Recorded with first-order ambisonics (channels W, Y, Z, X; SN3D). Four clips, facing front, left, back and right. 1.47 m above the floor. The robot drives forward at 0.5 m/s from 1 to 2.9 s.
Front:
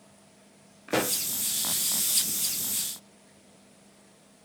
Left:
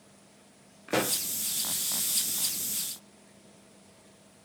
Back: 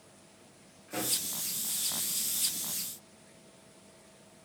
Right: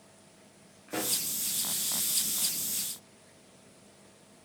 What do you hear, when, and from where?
0.9 s a pop: 35° left, 0.5 m; by 1.2 s 45° left, 0.5 m